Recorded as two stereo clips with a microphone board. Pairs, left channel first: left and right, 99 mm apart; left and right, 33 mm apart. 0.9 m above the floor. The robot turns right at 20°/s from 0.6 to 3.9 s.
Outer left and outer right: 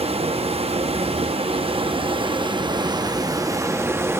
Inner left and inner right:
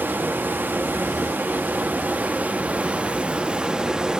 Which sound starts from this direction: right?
Running water, at 0.0 s.